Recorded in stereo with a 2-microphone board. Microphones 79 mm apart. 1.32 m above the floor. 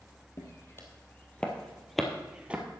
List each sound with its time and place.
0.4 s footsteps: 35° left (ahead or behind), 2 m; by 2.6 s 20° right (ahead or behind), 1.6 m